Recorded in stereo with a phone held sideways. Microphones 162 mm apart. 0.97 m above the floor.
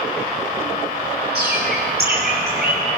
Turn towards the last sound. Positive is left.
turn(degrees=-85)